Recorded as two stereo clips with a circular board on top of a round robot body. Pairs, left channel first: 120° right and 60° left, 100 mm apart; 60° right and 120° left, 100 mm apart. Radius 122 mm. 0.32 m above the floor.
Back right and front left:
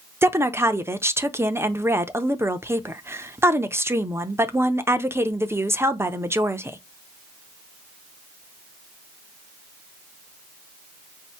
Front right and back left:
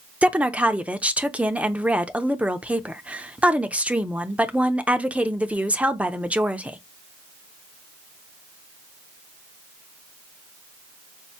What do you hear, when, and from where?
0.2 s a woman speaking: 60° left, 0.9 m